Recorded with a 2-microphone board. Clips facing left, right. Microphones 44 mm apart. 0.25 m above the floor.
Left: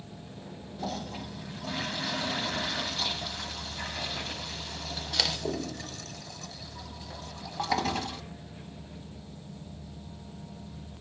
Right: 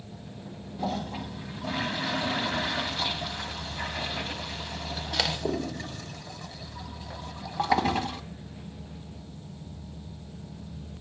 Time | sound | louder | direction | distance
0.8 | a toilet flushing | right 4 dB | 20° right (ahead or behind) | 1.1 m